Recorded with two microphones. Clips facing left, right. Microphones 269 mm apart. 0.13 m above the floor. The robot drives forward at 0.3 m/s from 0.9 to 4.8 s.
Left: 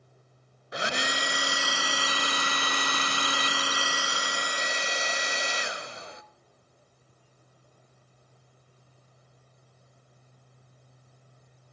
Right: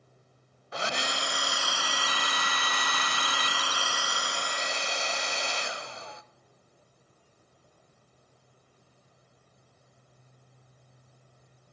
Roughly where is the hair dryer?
Centre.